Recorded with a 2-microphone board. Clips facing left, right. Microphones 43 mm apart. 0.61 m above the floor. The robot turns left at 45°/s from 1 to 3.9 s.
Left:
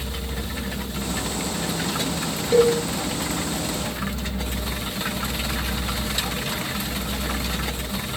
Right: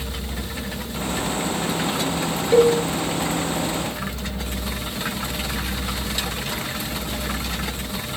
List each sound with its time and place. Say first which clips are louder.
2.5 s a cowbell: right 2 dB; 15° right (ahead or behind), 4 m; by 2.8 s 25° right (ahead or behind), 4 m